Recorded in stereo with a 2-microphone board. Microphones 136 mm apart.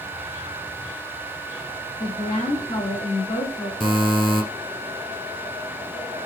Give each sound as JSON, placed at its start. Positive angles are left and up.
{"t": 2.0, "sound": "a woman speaking", "side_deg": 40, "distance_m": 1.6}
{"t": 3.8, "sound": "a buzzer", "side_deg": 0, "distance_m": 1.4}